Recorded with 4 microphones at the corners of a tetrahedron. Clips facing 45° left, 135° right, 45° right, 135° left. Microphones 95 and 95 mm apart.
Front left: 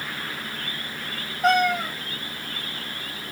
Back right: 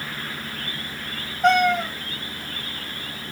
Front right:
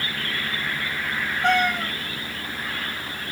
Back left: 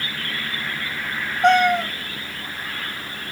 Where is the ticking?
No ticking in this recording.